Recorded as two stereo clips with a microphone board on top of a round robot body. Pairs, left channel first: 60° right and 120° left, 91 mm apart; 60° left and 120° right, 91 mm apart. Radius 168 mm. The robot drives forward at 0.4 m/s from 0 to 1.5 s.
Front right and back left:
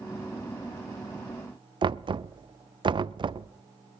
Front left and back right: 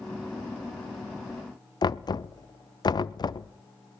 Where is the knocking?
95° left, 0.7 m.